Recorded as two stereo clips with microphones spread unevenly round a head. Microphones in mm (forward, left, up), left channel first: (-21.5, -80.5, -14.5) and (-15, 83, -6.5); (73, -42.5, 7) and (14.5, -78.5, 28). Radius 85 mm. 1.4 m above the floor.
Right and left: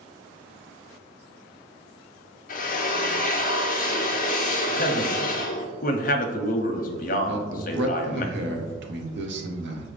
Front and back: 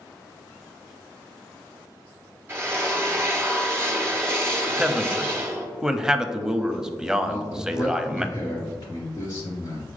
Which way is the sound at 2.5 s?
120° right.